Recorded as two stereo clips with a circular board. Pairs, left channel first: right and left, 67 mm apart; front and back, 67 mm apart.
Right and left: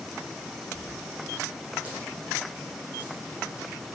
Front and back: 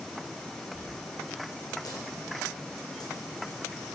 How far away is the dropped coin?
About 6.5 m.